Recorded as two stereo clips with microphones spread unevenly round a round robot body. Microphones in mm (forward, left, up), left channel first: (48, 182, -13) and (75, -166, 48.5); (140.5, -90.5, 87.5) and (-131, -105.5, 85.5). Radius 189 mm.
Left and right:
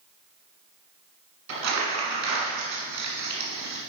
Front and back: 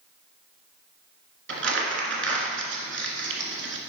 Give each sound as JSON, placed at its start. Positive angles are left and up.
{"t": 1.5, "sound": "crumpling", "azimuth_deg": -135, "distance_m": 1.9}